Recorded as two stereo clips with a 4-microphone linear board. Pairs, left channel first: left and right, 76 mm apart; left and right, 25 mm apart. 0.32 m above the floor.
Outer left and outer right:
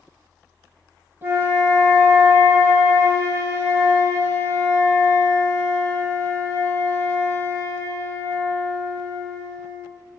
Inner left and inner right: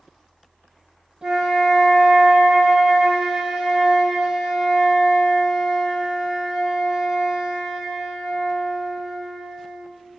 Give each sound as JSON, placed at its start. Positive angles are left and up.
{"t": 1.2, "sound": "a flute", "side_deg": -35, "distance_m": 0.7}